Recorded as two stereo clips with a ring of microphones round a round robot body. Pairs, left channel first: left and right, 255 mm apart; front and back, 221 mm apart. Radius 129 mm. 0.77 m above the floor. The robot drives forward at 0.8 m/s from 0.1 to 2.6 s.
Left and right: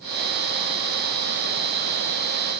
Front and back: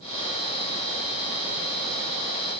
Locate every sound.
Only background noise.